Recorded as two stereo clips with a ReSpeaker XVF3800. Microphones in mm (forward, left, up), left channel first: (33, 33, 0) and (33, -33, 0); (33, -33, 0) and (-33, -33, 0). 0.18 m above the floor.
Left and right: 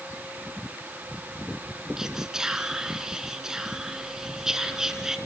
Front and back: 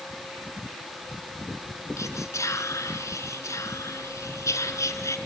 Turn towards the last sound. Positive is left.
turn(degrees=-10)